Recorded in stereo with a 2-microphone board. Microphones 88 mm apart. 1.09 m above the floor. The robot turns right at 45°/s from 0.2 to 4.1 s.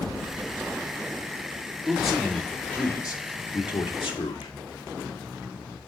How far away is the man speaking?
About 2 m.